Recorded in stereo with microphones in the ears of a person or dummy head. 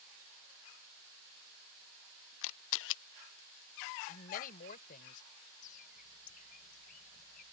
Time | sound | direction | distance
2.4 | a camera shutter | 70° left (ahead or behind) | ?
4.1 | a woman speaking | 45° left (ahead or behind) | ?
5.6 | a bird | 45° left (ahead or behind) | ?